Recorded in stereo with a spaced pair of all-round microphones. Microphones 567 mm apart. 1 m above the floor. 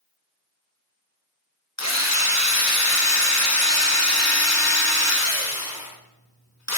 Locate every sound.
1.8 s a drill: 30° left (ahead or behind), 1.6 m